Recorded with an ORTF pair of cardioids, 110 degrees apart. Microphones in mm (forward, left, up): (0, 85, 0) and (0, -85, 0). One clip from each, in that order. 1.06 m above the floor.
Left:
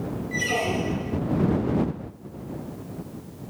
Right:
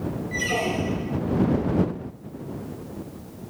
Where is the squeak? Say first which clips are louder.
Even; 5° left.